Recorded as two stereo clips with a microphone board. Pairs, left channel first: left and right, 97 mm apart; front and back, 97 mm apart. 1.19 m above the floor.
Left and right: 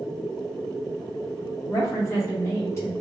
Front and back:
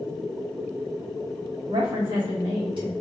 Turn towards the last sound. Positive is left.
turn(degrees=150)